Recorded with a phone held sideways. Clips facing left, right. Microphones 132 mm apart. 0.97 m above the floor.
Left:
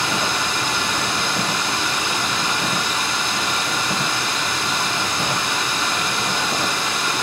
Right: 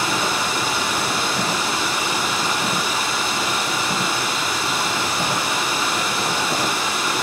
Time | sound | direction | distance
0.0 | running water | 5° right (ahead or behind) | 4.5 m